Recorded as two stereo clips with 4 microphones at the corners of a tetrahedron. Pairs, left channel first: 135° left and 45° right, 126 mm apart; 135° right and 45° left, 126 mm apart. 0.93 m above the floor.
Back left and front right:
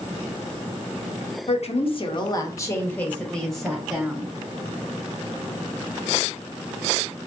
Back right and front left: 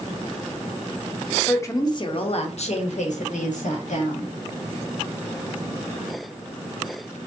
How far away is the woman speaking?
About 0.7 m.